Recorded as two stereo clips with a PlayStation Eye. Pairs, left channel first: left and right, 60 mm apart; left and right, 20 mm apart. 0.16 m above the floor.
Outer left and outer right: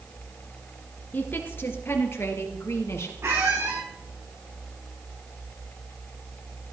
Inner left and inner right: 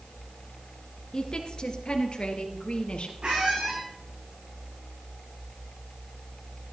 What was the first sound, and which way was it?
A woman speaking, 35° left (ahead or behind).